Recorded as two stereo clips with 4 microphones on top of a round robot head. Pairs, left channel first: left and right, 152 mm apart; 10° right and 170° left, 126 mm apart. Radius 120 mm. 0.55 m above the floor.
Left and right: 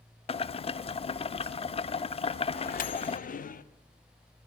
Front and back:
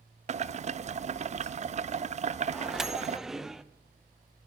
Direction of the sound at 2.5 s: 85° left.